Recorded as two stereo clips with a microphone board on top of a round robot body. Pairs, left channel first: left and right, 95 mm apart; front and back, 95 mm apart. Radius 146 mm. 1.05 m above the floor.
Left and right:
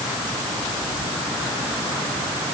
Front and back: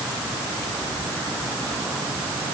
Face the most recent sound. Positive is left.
No sound to turn to.